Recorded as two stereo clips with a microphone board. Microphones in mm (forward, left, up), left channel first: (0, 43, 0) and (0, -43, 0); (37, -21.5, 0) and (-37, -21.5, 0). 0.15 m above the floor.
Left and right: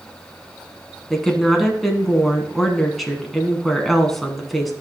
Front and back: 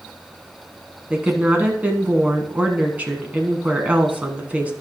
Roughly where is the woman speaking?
Behind.